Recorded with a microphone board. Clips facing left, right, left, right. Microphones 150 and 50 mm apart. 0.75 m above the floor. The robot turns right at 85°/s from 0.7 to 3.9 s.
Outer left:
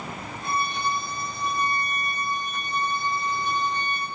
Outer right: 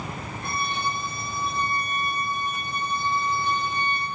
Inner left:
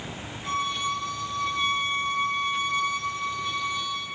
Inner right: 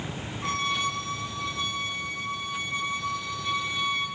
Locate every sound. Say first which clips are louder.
0.4 s a violin: outer left 2 dB, even; 65° right, 7 m; by 4.1 s 155° right, 7 m